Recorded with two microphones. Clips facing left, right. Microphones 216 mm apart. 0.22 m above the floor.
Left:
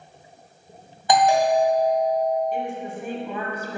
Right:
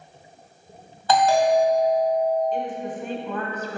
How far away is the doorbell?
About 2 m.